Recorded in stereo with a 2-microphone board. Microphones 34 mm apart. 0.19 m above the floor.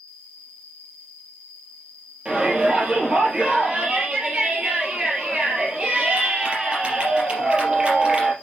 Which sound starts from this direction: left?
An insect, at 0.0 s.